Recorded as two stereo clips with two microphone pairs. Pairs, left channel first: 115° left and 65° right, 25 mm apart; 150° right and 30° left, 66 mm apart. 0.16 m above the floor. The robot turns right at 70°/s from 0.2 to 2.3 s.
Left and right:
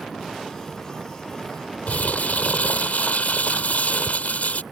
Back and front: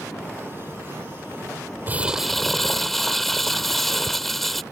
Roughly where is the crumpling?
Left.